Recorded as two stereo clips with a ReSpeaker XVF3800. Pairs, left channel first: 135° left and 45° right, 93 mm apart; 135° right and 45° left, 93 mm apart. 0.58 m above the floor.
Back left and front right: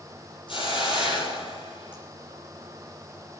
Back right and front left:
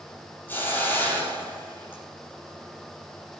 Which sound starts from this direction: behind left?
A hiss, at 0.5 s.